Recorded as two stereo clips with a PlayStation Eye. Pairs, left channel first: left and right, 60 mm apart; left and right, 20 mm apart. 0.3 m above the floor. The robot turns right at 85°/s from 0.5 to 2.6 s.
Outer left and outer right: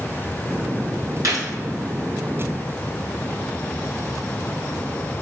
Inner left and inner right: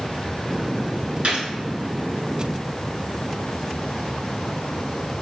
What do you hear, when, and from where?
1.2 s a gunshot: 60° right (ahead or behind), 1.1 m; by 1.5 s 80° right, 1.1 m